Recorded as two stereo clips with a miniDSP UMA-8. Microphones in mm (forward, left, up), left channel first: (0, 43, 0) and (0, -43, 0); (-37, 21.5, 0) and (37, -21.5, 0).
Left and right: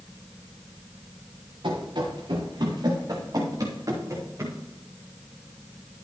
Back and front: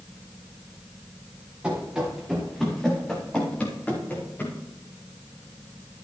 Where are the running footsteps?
110° right, 4 m; by 4.6 s 145° right, 5 m.